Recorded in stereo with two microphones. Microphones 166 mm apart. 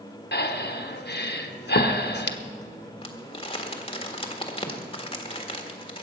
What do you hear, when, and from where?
0.3 s breathing: 80° left, 1.0 m
3.0 s crumpling: 30° left (ahead or behind), 1.6 m